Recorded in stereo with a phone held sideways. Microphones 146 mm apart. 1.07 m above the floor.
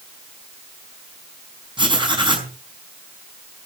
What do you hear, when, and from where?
1.8 s writing: 35° right (ahead or behind), 4.5 m